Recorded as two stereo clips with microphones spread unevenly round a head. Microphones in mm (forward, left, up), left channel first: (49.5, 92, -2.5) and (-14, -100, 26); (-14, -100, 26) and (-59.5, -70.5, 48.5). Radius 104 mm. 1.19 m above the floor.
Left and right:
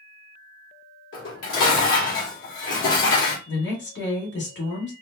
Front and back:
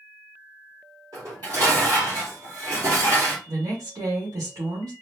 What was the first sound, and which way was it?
Dishes clattering, 105° left.